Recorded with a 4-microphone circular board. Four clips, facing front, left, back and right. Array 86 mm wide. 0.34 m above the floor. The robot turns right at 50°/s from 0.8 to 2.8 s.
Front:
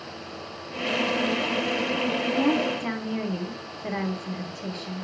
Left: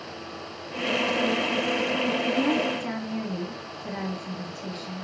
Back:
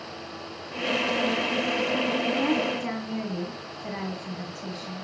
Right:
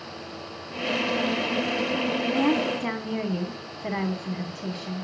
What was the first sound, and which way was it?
A woman speaking, 100° right.